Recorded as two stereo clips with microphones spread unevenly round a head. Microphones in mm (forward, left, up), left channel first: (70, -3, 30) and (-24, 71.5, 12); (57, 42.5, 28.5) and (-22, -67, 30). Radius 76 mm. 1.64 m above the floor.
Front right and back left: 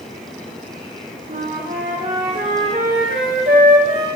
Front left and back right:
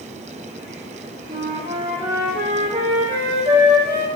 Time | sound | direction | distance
1.3 | a flute | straight behind | 1.8 m